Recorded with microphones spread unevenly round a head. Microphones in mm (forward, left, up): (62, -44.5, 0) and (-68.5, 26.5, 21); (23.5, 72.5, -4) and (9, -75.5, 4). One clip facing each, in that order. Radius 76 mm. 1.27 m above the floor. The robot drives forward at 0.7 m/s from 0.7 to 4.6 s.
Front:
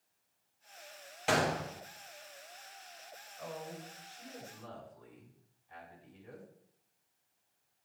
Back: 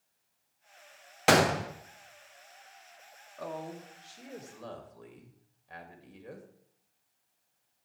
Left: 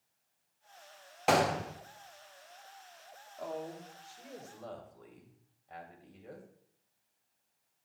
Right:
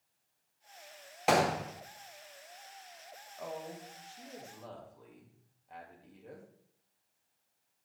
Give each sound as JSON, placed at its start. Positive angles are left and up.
{"t": 1.3, "sound": "a gunshot", "azimuth_deg": 175, "distance_m": 0.8}
{"t": 3.4, "sound": "a woman speaking", "azimuth_deg": 170, "distance_m": 1.7}